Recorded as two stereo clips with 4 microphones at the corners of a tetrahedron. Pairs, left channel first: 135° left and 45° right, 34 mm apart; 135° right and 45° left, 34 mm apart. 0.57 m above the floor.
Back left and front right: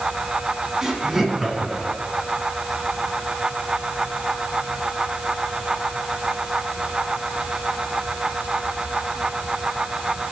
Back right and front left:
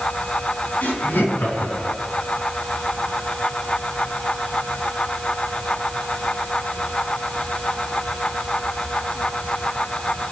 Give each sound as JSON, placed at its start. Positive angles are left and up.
{"t": 0.8, "sound": "laughter", "azimuth_deg": -120, "distance_m": 4.0}